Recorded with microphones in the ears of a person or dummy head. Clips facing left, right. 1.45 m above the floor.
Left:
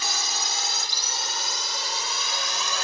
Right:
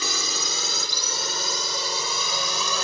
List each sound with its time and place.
0.0 s a drone: 65° right (ahead or behind); by 2.8 s 80° right